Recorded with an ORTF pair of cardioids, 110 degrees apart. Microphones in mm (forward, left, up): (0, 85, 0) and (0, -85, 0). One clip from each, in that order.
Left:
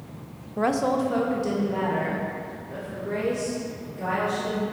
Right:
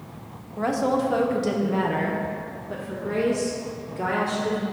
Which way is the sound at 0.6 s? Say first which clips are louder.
Even; 25° left.